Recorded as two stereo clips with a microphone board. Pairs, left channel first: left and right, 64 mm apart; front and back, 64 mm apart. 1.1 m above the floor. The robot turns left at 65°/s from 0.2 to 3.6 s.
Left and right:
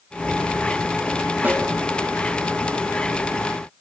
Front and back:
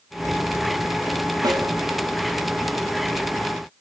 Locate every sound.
1.4 s a snare drum: 155° right, 3 m; by 1.7 s 170° right, 3 m